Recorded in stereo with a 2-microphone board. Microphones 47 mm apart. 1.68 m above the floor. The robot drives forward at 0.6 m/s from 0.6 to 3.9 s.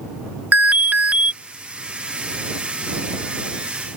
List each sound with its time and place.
0.5 s an alarm: 40° right (ahead or behind); by 1.3 s 30° right (ahead or behind)